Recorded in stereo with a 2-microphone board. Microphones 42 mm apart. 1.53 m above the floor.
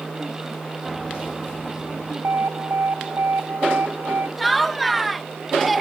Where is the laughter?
Centre (ahead or behind).